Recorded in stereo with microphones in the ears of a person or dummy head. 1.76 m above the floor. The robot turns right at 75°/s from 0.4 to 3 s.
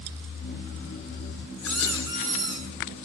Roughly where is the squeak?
Behind.